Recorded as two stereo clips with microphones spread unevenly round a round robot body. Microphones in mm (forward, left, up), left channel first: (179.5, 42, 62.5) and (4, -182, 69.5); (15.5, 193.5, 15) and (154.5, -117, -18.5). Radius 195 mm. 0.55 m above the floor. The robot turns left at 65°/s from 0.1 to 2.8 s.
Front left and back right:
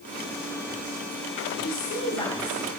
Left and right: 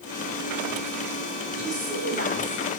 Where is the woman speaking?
20° left, 3 m; by 2.7 s 50° right, 3 m.